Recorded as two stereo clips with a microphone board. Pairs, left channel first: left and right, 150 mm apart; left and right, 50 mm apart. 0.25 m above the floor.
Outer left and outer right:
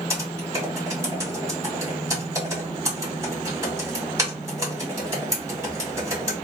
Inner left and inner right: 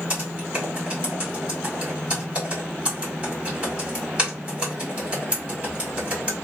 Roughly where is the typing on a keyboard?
Right.